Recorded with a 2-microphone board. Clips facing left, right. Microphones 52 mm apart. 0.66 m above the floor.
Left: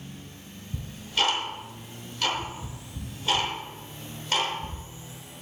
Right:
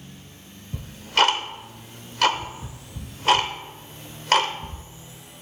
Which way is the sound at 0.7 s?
75° right (ahead or behind).